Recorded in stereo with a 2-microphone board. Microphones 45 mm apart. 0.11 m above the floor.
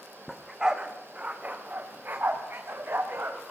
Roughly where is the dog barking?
Centre.